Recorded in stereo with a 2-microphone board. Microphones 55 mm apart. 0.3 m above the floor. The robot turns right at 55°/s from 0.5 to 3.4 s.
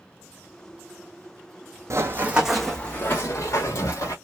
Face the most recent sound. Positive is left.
turn(degrees=70)  # may be behind; listen again after turning